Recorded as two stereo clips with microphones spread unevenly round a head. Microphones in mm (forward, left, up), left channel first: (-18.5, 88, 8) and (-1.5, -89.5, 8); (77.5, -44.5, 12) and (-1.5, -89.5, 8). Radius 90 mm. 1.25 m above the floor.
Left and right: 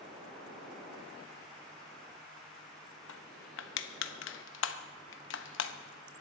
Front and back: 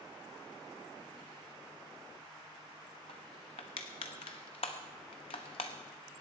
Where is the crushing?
75° left, 0.9 m.